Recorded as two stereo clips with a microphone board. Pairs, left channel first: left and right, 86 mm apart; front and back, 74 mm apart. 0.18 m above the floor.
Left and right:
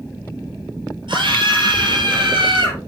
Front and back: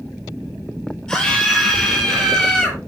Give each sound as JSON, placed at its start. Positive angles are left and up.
{"t": 1.1, "sound": "a scream", "azimuth_deg": -80, "distance_m": 4.5}